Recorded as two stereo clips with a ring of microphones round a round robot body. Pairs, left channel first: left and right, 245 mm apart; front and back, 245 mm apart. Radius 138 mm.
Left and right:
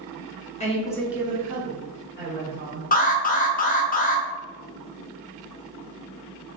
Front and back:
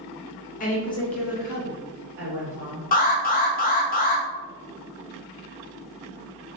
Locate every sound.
0.6 s a woman speaking: 40° left, 0.8 m; by 2.8 s 130° right, 2.0 m
2.9 s an alarm: 45° left, 0.6 m